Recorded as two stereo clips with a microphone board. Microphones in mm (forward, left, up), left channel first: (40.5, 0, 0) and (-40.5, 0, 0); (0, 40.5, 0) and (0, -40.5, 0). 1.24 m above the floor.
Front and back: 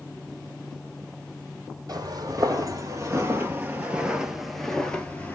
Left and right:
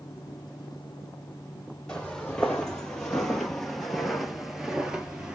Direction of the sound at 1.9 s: 165° left.